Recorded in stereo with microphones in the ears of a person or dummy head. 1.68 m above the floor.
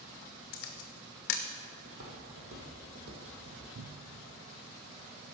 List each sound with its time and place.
0.5 s a camera shutter: 50° left (ahead or behind), 0.8 m
1.9 s footsteps: 60° right (ahead or behind), 3 m; by 3.6 s 50° right (ahead or behind), 3.5 m
3.8 s a cupboard door: 55° right (ahead or behind), 0.6 m